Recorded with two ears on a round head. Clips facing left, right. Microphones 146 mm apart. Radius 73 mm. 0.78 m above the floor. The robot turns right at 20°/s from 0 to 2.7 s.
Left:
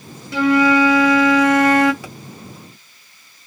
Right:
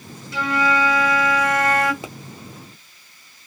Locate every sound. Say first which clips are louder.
0.3 s a flute: left 7 dB; 65° left, 0.7 m; by 1.9 s 95° left, 0.7 m
2.0 s a pop: right 1 dB; 20° right (ahead or behind), 0.8 m